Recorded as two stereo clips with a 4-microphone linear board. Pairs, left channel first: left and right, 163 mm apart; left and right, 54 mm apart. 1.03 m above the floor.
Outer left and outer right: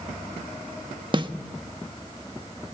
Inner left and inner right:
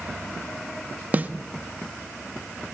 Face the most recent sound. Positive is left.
turn(degrees=-30)  # may be behind; listen again after turning